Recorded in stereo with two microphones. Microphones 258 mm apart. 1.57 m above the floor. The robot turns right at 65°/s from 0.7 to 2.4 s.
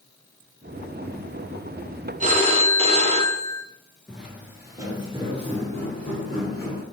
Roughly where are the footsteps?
Centre.